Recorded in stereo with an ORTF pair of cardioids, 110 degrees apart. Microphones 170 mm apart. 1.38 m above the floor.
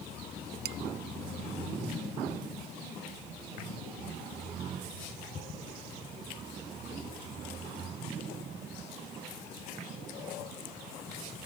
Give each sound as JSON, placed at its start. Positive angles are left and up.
{"t": 0.7, "sound": "dishes clattering", "azimuth_deg": -65}